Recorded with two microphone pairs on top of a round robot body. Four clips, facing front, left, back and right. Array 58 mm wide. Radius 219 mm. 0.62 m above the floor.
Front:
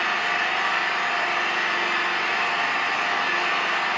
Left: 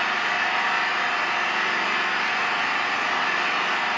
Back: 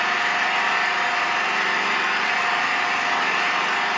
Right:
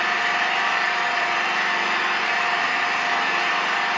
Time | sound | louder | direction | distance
0.0 | an engine running | right 2 dB, back 2 dB | 160° right | 1.1 m